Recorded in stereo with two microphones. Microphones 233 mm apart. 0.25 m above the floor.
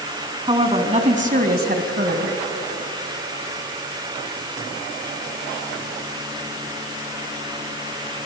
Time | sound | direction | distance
0.5 | a woman speaking | 20° right (ahead or behind) | 3 m